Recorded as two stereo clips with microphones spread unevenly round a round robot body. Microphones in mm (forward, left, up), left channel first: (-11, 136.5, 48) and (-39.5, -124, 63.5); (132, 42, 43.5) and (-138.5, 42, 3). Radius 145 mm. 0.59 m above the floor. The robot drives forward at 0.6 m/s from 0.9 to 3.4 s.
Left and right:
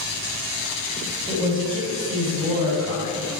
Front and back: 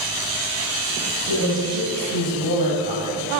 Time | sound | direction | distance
1.3 | a woman speaking | 165° right | 3 m